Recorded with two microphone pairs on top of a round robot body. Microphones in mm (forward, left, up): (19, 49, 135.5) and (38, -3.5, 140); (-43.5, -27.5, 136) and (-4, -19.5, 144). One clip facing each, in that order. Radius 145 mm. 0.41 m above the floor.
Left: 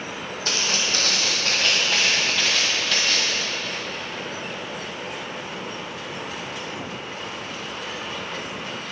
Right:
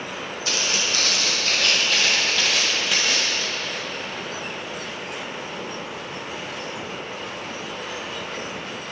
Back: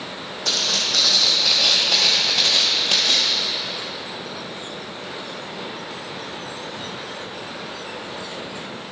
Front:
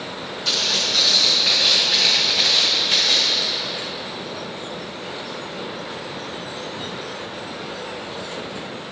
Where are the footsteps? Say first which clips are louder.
Even, front 1 dB; 155° left, 1.6 m; by 3.4 s 130° right, 1.1 m.